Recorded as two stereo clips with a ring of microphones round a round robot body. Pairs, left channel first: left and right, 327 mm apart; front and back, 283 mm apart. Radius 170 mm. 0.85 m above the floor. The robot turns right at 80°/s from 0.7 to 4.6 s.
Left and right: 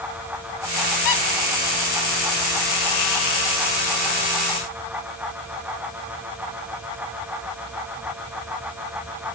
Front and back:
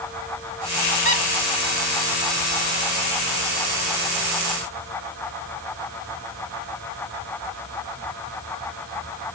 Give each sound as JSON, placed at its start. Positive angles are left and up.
{"t": 1.1, "sound": "a squeak", "azimuth_deg": 60, "distance_m": 1.6}